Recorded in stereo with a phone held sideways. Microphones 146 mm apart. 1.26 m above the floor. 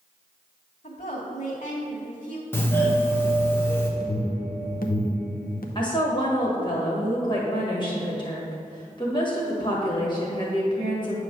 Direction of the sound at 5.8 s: 30° left (ahead or behind).